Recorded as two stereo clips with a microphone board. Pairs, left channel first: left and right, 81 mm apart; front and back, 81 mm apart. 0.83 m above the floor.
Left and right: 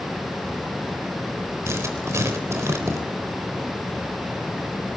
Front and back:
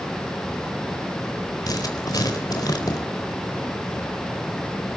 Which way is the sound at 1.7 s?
35° right.